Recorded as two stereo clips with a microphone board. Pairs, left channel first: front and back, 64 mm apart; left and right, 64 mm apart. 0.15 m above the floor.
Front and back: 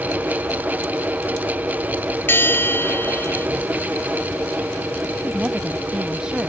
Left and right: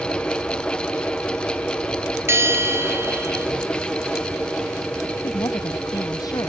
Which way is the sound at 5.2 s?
105° left.